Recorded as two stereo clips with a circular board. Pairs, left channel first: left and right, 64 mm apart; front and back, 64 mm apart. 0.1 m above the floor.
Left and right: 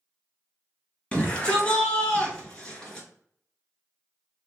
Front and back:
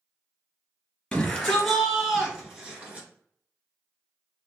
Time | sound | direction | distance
1.1 | a shout | 60° left | 1.7 m